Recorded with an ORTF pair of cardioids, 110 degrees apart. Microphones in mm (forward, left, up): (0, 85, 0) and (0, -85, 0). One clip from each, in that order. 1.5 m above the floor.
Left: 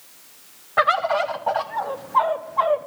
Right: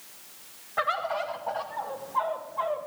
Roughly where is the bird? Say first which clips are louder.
Left 9 dB; ahead left.